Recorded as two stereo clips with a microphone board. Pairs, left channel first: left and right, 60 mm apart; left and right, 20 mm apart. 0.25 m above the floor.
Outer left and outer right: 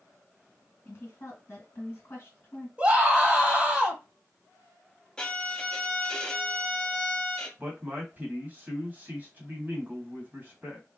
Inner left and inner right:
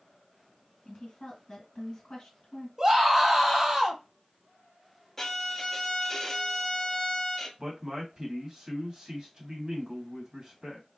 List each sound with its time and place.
0.8 s a woman speaking: 40° left (ahead or behind), 1.9 m
2.8 s a scream: 20° right (ahead or behind), 1.2 m
5.2 s a violin: 15° left (ahead or behind), 0.6 m
7.6 s a man speaking: 30° right (ahead or behind), 1.3 m